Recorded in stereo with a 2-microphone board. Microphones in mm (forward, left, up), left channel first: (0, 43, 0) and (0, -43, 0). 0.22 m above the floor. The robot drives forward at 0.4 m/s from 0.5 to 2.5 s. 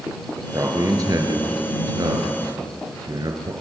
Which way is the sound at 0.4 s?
40° right (ahead or behind).